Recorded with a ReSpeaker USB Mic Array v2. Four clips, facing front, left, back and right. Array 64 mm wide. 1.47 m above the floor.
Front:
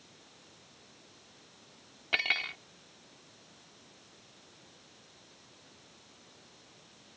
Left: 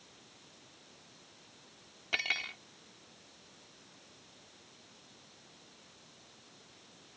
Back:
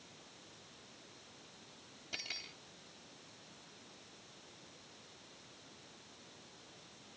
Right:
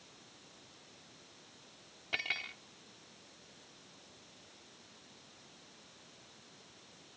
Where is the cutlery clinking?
15° left.